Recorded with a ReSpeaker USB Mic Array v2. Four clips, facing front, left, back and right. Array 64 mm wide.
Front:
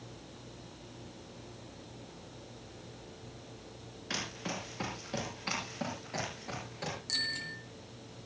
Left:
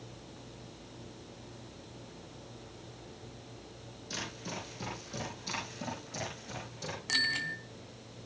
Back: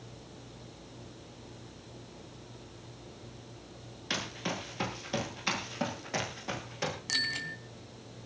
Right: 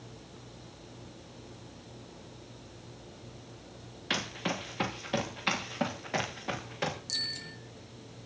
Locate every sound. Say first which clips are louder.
4.1 s running footsteps: right 8 dB, back 3 dB; 100° right, 8 m; by 7.0 s 110° right, 8.5 m
7.1 s a bicycle bell: left 10 dB, back 4 dB; 120° left, 3 m